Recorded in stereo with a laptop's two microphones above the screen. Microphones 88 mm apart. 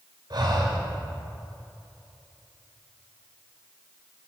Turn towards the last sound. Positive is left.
turn(degrees=-55)  # may be behind; listen again after turning